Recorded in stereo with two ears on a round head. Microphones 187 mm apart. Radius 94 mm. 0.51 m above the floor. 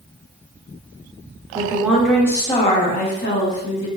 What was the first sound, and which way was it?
A woman speaking, 15° right (ahead or behind).